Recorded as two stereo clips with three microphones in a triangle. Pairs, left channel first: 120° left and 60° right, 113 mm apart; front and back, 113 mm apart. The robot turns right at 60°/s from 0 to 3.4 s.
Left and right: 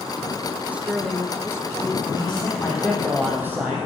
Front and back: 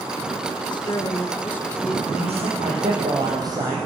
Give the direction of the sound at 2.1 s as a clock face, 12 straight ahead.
7 o'clock.